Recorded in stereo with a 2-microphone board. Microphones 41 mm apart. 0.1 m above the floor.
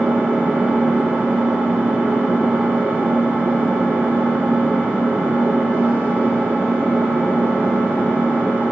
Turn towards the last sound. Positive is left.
turn(degrees=-50)  # may be behind; listen again after turning